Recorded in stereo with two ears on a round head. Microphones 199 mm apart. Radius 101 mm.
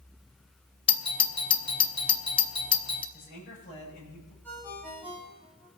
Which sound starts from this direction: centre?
A ringtone, at 4.4 s.